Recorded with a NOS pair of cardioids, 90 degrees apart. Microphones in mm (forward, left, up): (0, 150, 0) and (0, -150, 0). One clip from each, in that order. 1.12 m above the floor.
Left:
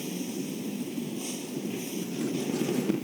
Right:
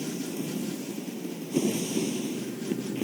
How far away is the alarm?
I don't hear an alarm.